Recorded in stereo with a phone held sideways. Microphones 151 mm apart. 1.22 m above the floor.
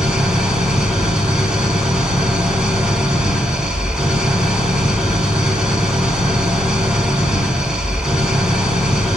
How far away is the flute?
I don't hear a flute.